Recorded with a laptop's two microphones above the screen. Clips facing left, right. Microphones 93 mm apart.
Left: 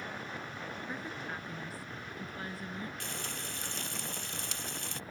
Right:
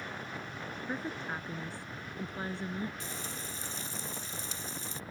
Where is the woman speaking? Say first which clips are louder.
Right 6 dB; 30° right (ahead or behind).